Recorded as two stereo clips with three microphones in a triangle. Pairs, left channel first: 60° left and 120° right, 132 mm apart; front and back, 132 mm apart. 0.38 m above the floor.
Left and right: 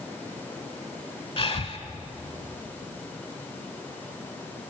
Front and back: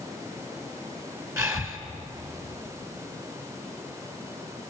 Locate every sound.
1.4 s breathing: 115° left, 3.5 m